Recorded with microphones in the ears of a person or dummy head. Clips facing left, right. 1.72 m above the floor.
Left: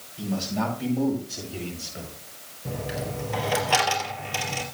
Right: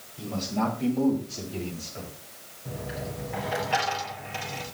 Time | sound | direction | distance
0.2 | a man speaking | 5° left (ahead or behind) | 8.5 m
2.6 | a dropped coin | 55° left (ahead or behind) | 3.5 m